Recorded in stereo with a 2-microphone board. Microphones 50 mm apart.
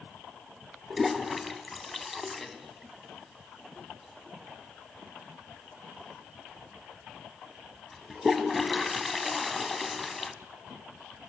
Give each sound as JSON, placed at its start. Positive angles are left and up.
{"t": 0.9, "sound": "a toilet flushing", "side_deg": 0, "distance_m": 1.1}